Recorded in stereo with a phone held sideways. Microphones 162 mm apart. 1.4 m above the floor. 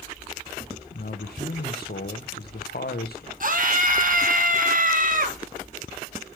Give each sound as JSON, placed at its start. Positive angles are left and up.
{"t": 0.9, "sound": "a man speaking", "side_deg": 75, "distance_m": 0.8}
{"t": 3.4, "sound": "a scream", "side_deg": -55, "distance_m": 1.5}